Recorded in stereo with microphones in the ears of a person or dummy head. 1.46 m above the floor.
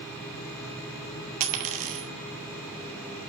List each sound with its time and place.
1.4 s a dropped coin: 40° right (ahead or behind), 1.3 m